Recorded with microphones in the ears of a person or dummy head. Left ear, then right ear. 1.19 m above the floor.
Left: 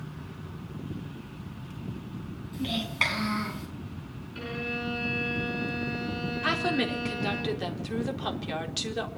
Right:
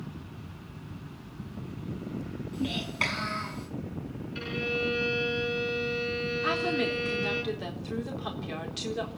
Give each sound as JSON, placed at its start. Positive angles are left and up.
{"t": 2.5, "sound": "a child speaking", "side_deg": 5, "distance_m": 7.5}
{"t": 4.3, "sound": "a violin", "side_deg": -25, "distance_m": 6.5}
{"t": 6.4, "sound": "a woman speaking", "side_deg": 15, "distance_m": 4.0}